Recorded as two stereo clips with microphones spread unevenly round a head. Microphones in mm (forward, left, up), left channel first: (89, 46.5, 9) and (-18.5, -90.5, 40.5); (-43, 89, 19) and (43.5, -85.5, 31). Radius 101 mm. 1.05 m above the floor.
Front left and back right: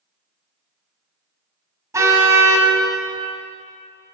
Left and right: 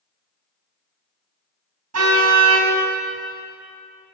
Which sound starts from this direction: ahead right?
A car horn, at 1.9 s.